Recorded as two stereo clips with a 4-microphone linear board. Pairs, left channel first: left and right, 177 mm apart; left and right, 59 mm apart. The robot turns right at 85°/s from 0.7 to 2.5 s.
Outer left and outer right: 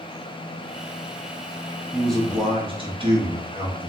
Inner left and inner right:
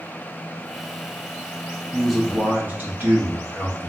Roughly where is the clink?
I don't hear a clink.